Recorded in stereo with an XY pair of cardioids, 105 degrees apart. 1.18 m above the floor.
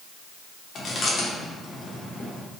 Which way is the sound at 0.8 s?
50° left.